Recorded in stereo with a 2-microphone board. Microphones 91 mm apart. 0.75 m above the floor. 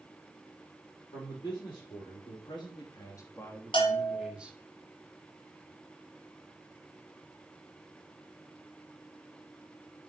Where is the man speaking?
65° left (ahead or behind), 2.5 m; by 4.6 s 15° right (ahead or behind), 1.6 m.